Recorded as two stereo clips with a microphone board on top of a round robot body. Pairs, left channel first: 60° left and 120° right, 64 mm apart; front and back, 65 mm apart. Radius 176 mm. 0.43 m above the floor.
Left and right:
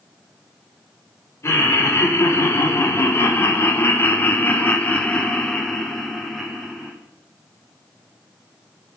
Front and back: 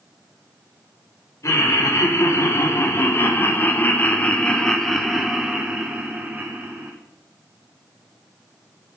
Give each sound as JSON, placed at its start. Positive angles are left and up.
{"t": 1.4, "sound": "laughter", "azimuth_deg": 20, "distance_m": 2.5}